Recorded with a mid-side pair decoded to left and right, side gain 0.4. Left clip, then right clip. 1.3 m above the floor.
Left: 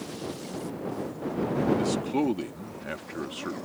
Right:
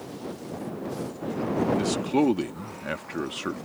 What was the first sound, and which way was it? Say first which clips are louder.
A man speaking: right 3 dB; 35° right.